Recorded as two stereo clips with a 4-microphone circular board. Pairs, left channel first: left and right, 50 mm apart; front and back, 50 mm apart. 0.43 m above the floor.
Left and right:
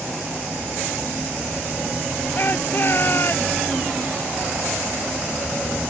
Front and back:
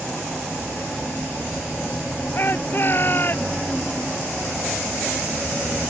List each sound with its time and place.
2.4 s a shout: 45° left